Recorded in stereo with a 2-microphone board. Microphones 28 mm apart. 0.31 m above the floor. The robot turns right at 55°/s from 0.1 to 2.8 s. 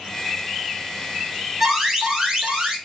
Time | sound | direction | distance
1.6 | an alarm | 10° right (ahead or behind) | 1.7 m